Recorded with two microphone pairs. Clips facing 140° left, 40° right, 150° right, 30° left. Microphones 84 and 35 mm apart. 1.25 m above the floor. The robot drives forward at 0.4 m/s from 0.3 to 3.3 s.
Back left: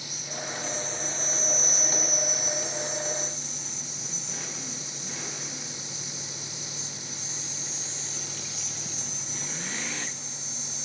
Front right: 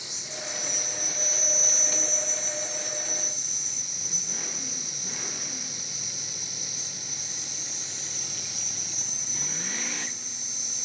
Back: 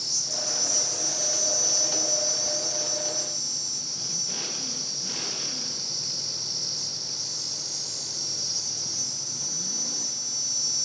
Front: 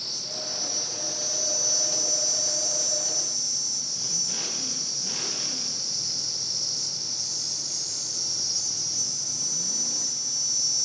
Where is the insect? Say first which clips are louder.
Back left 2 dB, back 2 dB; 5° left, 1.1 m; by 10.8 s 175° left, 1.1 m.